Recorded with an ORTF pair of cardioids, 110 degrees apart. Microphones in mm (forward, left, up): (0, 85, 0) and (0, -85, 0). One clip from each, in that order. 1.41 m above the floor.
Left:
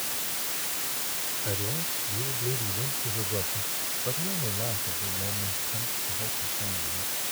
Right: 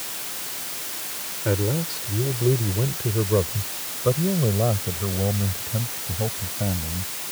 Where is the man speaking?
65° right; by 7.1 s 75° right.